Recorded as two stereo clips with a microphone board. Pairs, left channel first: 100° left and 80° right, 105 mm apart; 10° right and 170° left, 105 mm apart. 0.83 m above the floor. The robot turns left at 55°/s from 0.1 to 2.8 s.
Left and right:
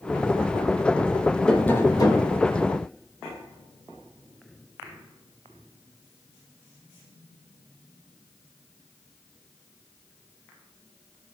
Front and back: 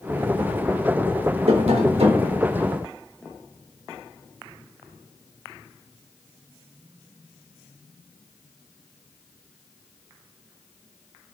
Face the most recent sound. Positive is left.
turn(degrees=110)